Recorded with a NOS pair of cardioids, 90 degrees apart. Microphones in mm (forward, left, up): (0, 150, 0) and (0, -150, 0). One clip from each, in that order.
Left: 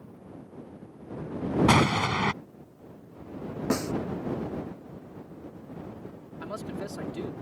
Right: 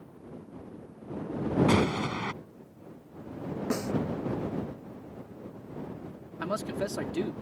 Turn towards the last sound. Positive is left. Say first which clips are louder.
# right 5 dB
turn(degrees=-45)